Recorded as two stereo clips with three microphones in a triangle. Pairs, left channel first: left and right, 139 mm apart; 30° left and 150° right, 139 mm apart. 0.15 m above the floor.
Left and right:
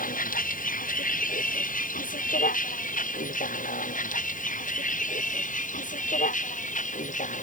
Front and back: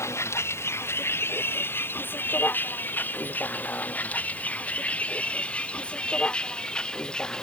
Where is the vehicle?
100° left; by 7.4 s 115° left.